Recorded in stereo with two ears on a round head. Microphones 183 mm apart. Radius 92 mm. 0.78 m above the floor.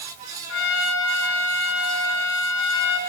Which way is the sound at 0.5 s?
65° left (ahead or behind).